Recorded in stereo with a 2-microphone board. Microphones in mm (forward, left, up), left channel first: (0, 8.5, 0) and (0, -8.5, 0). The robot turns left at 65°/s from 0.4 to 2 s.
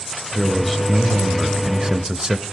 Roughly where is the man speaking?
Ahead left.